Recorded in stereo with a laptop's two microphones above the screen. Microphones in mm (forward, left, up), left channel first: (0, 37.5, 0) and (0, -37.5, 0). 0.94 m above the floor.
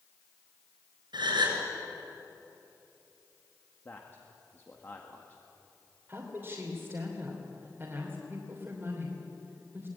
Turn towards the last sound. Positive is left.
turn(degrees=-30)  # may be behind; listen again after turning